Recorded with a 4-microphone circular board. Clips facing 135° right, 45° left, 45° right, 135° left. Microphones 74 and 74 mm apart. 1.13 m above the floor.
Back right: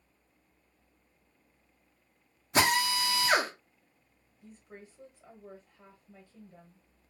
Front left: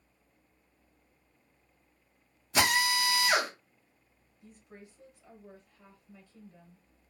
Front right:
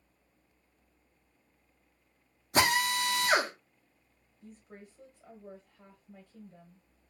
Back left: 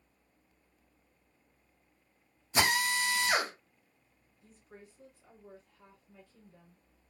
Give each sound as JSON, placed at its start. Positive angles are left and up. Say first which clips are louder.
{"t": 2.5, "sound": "a drill", "louder": "back right 1 dB, front right 2 dB", "azimuth_deg": -85, "distance_m": 1.1}
{"t": 4.4, "sound": "a woman speaking", "louder": "back right 2 dB, front right 4 dB", "azimuth_deg": -75, "distance_m": 1.5}